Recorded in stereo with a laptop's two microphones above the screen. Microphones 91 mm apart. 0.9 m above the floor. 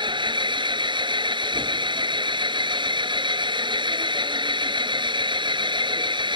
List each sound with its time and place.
0.0 s an engine running: 60° right (ahead or behind)